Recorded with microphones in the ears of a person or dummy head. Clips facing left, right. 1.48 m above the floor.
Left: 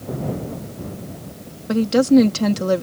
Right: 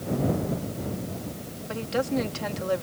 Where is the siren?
I don't hear a siren.